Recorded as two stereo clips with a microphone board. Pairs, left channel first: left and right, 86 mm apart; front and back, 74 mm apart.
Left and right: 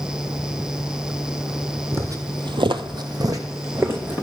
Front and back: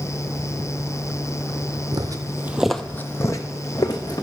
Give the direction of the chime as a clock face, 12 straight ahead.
No chime in this recording.